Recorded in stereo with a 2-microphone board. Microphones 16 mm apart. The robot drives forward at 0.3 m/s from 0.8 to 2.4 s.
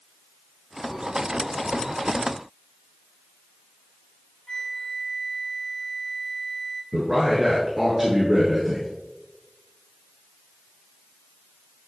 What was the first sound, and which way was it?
A flute, 55° left (ahead or behind).